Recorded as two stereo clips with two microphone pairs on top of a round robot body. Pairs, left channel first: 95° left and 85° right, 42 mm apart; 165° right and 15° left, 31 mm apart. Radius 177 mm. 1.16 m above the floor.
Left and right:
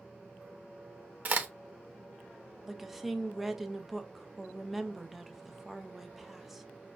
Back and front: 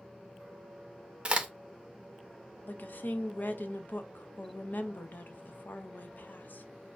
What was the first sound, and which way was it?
A crack, 35° right.